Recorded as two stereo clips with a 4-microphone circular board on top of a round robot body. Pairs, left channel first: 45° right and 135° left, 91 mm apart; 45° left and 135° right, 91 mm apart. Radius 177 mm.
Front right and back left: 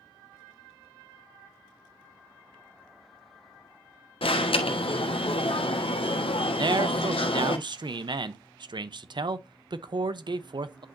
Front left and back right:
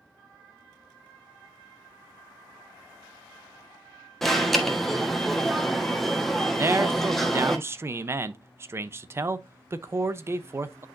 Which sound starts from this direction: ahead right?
An alarm, at 4.2 s.